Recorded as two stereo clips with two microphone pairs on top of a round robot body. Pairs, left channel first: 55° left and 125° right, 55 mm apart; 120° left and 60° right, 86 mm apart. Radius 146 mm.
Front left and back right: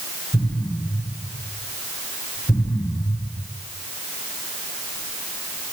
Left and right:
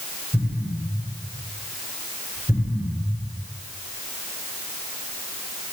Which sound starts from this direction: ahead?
An explosion, at 0.3 s.